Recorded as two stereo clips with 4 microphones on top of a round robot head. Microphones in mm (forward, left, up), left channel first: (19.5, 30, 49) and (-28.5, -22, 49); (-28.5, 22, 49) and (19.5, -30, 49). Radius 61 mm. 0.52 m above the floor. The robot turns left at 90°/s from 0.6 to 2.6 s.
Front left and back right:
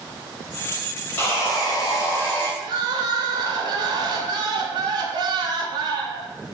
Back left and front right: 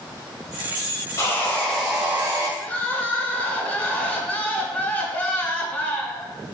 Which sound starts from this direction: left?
Sawing, at 1.2 s.